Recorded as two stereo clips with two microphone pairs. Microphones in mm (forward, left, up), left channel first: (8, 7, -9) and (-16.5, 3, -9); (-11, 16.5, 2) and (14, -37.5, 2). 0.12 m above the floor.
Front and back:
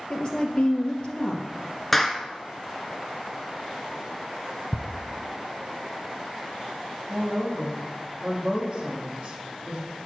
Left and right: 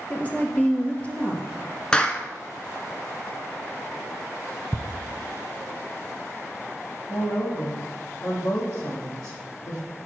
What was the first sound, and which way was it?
A woman speaking, 50° left.